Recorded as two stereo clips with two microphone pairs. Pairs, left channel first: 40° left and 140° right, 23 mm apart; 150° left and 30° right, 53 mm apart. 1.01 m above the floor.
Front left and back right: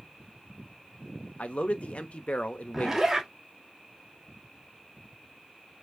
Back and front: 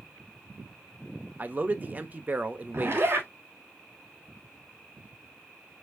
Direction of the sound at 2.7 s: 70° right.